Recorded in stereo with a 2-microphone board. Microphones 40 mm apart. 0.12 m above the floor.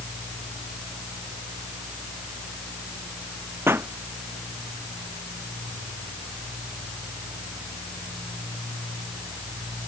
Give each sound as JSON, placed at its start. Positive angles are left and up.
{"t": 3.7, "sound": "a pop", "side_deg": -75}